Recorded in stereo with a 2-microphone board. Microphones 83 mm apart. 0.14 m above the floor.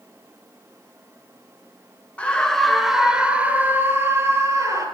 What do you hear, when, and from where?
2.2 s a scream: 15° left (ahead or behind), 2.5 m; by 4.9 s 40° right (ahead or behind), 3.5 m